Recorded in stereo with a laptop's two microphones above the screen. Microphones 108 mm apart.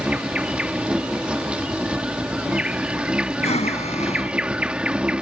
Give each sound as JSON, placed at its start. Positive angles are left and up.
{"t": 0.0, "sound": "an insect", "side_deg": -10}
{"t": 3.4, "sound": "breathing", "side_deg": 85}